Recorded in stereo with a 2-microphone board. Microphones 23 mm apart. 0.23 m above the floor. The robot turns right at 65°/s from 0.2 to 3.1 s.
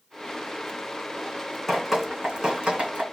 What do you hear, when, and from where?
1.7 s dripping: 5° left (ahead or behind), 3 m; by 3.0 s 80° right, 3 m